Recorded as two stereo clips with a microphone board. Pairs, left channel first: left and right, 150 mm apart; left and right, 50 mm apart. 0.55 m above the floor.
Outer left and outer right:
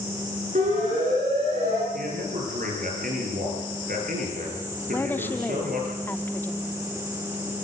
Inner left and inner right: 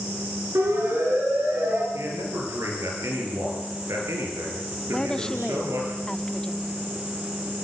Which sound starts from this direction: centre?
A woman speaking, at 4.9 s.